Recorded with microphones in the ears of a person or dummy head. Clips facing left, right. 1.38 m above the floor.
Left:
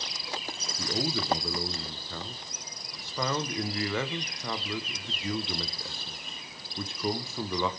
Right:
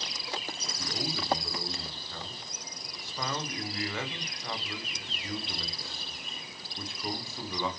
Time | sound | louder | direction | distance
0.8 | a man speaking | left 6 dB | 60° left (ahead or behind) | 0.9 m